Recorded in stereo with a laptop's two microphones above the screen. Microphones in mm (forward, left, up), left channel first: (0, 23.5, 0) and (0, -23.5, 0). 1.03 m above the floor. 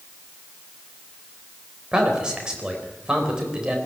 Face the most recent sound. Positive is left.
turn(degrees=-20)  # may be behind; listen again after turning